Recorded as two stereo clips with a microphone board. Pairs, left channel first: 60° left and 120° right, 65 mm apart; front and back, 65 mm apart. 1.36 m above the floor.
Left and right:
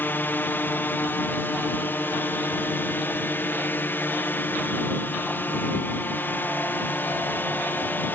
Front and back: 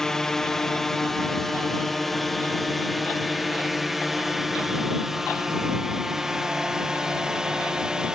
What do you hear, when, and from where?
0.0 s a drone: 75° left; by 8.2 s 105° left